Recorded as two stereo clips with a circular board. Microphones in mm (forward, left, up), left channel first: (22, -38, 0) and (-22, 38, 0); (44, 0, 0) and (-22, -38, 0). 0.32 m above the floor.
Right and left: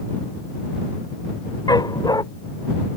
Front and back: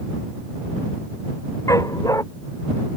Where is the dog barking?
15° right.